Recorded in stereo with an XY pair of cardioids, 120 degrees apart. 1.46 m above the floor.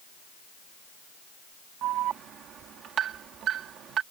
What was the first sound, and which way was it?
An alarm, 60° right.